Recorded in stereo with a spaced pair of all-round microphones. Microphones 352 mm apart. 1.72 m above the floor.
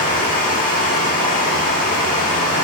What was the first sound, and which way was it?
Running water, 25° left (ahead or behind).